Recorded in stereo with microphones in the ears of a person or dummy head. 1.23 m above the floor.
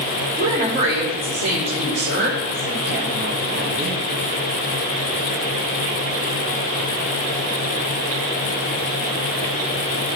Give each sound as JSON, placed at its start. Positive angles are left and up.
{"t": 0.4, "sound": "a woman speaking", "side_deg": -50, "distance_m": 3.5}